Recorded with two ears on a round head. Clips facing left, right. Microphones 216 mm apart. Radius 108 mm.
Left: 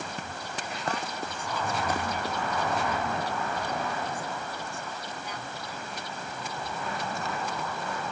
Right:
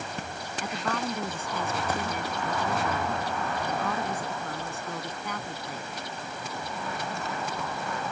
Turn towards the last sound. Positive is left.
turn(degrees=-45)  # may be behind; listen again after turning